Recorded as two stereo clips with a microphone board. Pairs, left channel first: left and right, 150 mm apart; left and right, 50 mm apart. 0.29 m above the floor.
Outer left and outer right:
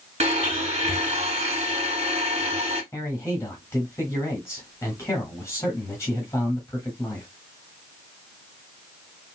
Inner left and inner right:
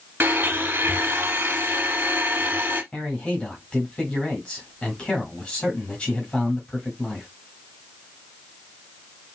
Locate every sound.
0.2 s a blender: 50° right (ahead or behind), 1.1 m
2.9 s a man speaking: 20° left (ahead or behind), 1.4 m